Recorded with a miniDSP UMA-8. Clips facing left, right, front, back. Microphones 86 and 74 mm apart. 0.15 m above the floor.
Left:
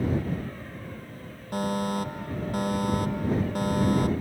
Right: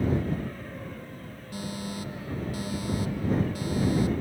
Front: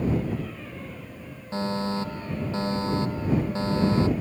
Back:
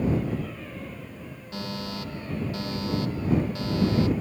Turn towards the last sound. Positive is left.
turn(degrees=55)